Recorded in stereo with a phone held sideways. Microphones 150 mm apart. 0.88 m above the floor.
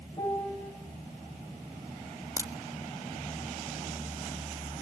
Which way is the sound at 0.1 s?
25° left (ahead or behind).